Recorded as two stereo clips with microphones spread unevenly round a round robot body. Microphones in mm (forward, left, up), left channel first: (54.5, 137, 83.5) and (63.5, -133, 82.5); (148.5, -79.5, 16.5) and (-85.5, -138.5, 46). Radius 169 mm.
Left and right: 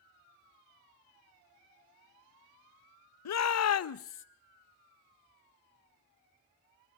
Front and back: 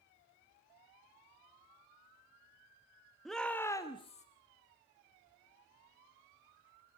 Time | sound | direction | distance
3.2 | a shout | 100° left | 0.8 m